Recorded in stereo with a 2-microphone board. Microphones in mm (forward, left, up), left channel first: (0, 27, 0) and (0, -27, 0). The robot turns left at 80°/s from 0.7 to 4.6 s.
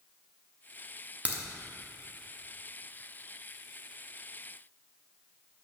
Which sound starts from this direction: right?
A crack, at 1.2 s.